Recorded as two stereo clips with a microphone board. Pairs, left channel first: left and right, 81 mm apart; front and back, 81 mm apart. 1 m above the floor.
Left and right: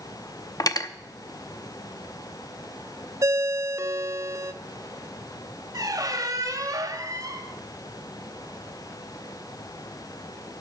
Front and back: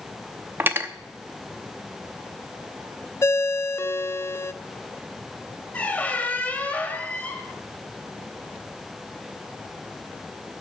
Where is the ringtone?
50° right, 0.5 m.